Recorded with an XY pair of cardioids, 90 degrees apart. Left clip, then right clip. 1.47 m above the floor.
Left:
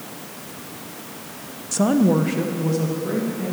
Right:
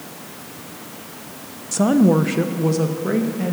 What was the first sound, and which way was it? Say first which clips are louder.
A woman speaking: right 2 dB; 5° right.